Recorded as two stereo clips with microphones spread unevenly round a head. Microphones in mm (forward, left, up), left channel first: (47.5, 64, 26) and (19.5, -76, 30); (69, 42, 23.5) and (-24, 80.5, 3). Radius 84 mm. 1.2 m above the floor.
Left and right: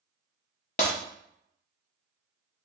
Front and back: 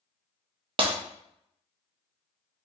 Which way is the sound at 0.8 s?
125° left.